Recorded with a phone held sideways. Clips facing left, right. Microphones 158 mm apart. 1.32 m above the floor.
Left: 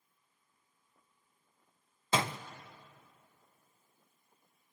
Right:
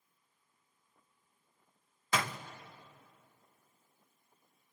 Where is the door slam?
25° left (ahead or behind), 0.5 m.